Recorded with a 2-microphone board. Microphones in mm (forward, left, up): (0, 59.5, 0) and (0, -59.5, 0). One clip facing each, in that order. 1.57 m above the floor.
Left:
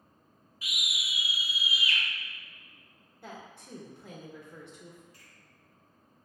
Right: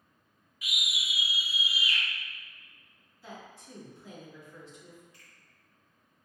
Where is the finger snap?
40° left (ahead or behind), 2.0 m.